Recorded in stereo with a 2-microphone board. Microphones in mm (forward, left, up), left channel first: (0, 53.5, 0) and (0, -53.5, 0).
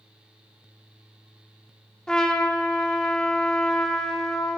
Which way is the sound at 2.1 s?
5° left (ahead or behind).